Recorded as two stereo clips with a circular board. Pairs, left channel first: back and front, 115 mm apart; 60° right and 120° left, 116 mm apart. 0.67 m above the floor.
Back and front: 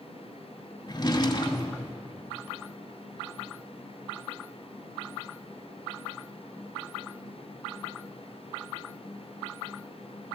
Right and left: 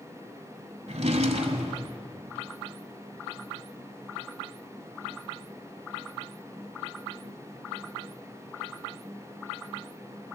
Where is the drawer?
130° left, 1.1 m.